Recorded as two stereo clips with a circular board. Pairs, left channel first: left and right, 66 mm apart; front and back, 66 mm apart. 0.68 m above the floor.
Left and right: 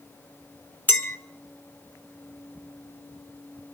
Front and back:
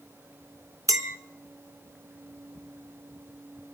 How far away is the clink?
About 1.0 m.